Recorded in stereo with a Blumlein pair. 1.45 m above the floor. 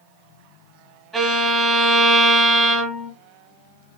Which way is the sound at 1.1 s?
20° right.